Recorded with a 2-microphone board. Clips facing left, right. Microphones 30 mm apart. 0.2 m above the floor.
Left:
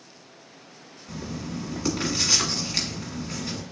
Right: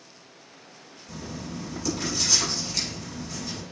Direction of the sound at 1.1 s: 50° left (ahead or behind).